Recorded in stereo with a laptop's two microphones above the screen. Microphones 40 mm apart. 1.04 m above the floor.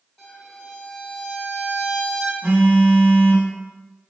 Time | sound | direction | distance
0.2 | a violin | 15° left (ahead or behind) | 1.7 m
2.4 | a phone buzzing | 35° right (ahead or behind) | 1.5 m